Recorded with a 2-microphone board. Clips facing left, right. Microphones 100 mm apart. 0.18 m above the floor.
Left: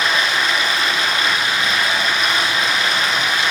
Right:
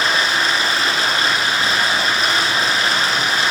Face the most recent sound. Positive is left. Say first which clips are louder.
# even
turn(degrees=-35)  # may be behind; listen again after turning